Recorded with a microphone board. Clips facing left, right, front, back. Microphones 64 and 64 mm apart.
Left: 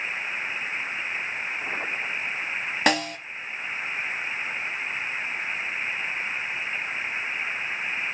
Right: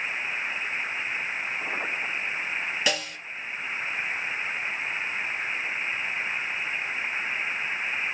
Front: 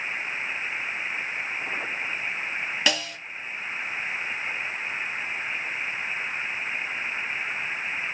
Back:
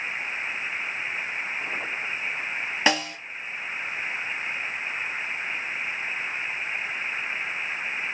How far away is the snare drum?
About 1.1 m.